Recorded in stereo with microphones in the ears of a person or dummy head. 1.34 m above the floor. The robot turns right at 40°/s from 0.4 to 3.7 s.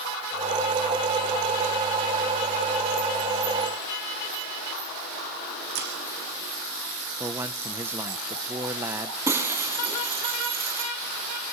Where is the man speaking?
15° right (ahead or behind), 0.8 m.